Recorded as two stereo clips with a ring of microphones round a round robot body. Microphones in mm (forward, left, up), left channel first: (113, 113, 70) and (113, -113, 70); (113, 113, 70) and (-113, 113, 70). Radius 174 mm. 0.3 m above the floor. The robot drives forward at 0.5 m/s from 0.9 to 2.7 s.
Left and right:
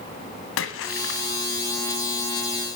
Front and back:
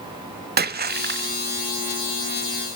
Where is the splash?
130° left, 0.8 m; by 1.4 s 140° left, 1.0 m.